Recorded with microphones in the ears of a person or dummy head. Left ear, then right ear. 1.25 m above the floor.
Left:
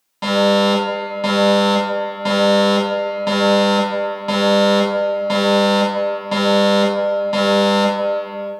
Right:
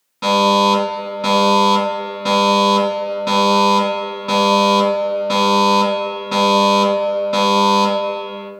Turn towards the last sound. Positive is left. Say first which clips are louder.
# right 2 dB
turn(degrees=5)  # may be behind; listen again after turning